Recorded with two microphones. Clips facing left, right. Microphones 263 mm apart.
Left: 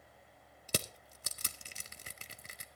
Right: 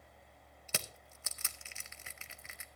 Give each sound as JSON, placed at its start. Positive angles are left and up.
{"t": 0.7, "sound": "crushing", "side_deg": 40, "distance_m": 0.7}